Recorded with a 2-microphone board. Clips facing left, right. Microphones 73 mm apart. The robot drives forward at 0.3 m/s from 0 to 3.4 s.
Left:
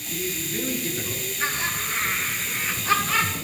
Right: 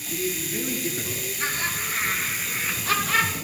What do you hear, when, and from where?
0.1 s a man speaking: 5° left (ahead or behind), 1.7 m
1.4 s laughter: 15° left (ahead or behind), 6 m